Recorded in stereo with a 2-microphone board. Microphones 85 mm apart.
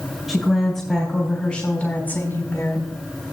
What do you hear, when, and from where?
0.3 s a woman speaking: 5° right (ahead or behind), 4 m; by 2.9 s 35° left (ahead or behind), 2.5 m